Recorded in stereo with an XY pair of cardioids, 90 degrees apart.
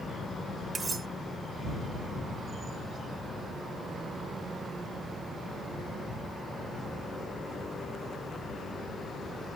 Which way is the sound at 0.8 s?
40° right.